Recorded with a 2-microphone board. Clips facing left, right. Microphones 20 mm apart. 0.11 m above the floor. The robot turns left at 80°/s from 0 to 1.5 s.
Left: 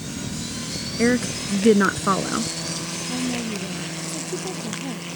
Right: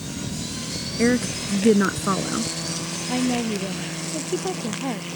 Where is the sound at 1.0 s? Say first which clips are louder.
Even; 5° left (ahead or behind); by 2.5 s 20° left (ahead or behind).